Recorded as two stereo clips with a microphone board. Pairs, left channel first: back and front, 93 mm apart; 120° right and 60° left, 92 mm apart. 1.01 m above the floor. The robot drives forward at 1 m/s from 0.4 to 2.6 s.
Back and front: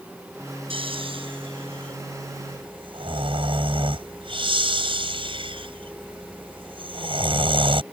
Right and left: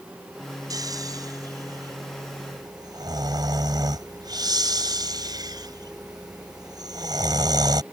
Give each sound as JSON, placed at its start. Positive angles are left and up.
{"t": 0.7, "sound": "snoring", "azimuth_deg": 15}